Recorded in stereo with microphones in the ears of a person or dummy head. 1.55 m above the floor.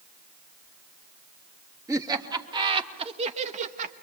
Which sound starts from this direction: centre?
Laughter, at 1.9 s.